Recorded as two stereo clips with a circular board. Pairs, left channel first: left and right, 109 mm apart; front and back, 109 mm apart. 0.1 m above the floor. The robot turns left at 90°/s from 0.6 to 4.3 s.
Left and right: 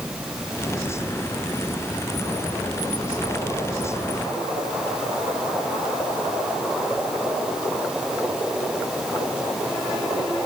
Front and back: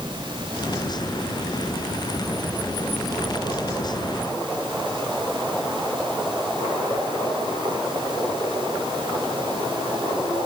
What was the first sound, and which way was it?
Only background noise.